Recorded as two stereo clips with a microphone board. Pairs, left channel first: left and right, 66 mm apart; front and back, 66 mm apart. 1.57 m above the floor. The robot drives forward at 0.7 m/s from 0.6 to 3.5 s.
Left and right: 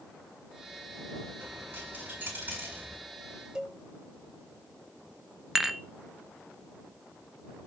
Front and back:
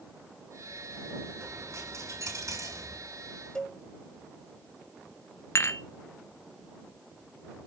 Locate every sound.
1.4 s a dropped coin: 150° right, 7 m; by 3.0 s 155° right, 8 m
3.5 s a cowbell: 50° right, 1.3 m
5.5 s dishes clattering: 10° right, 0.9 m